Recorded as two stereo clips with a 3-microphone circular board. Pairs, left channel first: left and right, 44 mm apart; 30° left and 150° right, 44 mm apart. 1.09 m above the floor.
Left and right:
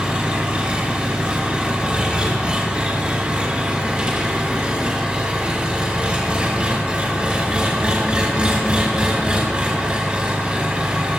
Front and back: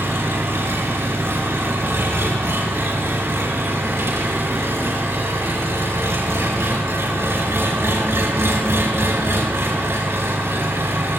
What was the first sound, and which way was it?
An engine running, 155° right.